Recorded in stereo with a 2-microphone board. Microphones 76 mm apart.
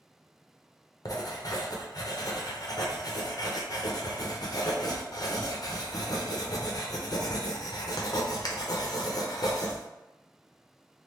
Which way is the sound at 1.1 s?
55° left (ahead or behind).